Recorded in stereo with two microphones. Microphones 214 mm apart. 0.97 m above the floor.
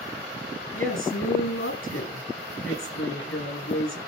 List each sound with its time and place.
0.7 s a woman speaking: 85° left, 9 m